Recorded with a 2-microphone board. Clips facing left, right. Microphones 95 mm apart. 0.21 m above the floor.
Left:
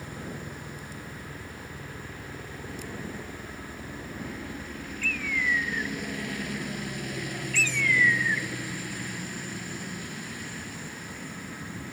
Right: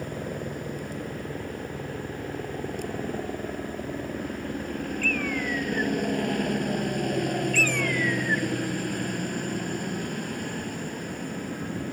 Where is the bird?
45° right (ahead or behind).